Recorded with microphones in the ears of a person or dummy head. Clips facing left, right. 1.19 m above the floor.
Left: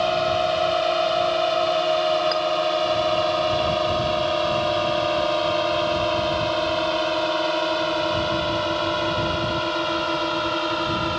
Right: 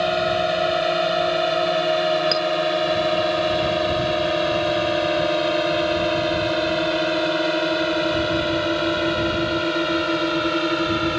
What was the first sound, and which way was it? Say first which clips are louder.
A drone: right 1 dB; 15° right (ahead or behind).